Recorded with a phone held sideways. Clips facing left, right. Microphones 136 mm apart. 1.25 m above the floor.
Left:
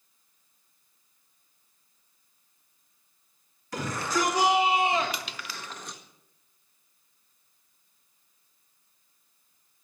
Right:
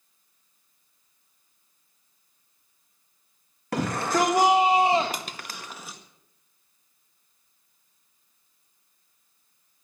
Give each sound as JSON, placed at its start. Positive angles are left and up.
{"t": 3.7, "sound": "a shout", "side_deg": -65, "distance_m": 1.9}
{"t": 5.1, "sound": "crushing", "side_deg": -45, "distance_m": 0.8}